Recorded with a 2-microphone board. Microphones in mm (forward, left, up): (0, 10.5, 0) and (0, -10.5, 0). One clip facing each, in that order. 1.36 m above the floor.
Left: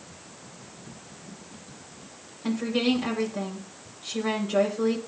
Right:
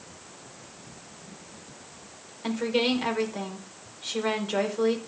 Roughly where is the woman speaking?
Right.